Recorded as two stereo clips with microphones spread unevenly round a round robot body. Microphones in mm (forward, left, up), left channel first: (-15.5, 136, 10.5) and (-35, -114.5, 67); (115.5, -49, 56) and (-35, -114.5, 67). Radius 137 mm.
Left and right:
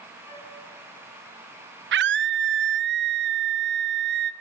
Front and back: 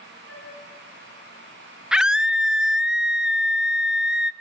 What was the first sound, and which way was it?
A flute, 115° left.